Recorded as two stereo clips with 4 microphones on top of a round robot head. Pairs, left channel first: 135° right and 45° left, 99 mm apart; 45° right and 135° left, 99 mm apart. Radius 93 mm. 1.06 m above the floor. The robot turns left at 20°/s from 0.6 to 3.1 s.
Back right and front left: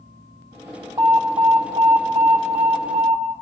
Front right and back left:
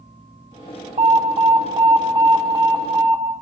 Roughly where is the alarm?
Left.